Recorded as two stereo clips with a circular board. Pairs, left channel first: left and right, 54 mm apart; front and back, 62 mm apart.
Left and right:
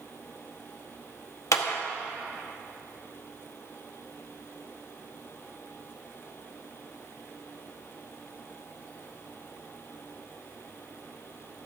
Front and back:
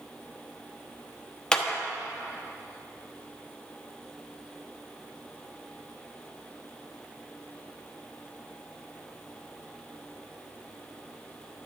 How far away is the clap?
About 0.9 m.